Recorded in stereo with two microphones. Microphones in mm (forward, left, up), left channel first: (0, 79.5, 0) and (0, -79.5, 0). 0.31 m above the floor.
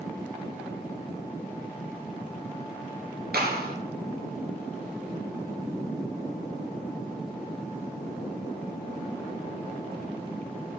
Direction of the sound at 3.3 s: 70° right (ahead or behind).